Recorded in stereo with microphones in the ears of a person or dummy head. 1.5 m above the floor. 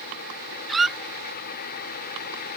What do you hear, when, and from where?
0.7 s a squeak: 5° right (ahead or behind)